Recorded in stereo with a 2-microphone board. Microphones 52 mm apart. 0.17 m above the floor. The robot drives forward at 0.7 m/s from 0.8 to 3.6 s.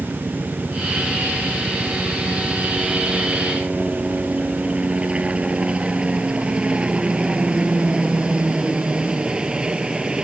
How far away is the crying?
I don't hear crying.